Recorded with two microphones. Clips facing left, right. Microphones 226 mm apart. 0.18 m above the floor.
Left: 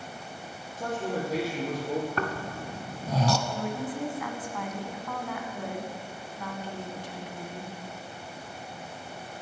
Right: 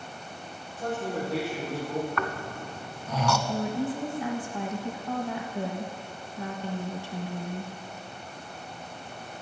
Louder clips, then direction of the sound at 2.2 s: Left 1 dB; 35° left (ahead or behind).